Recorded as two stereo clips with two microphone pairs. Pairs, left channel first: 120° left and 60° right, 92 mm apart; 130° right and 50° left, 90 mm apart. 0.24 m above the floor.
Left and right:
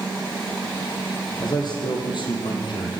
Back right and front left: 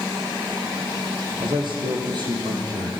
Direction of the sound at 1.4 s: 80° left.